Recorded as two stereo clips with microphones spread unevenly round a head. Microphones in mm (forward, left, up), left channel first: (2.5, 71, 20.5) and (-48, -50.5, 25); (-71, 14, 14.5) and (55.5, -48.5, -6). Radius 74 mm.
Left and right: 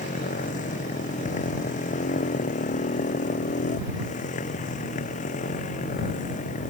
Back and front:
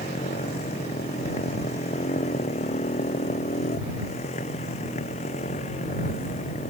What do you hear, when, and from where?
0.0 s a motorcycle: 100° left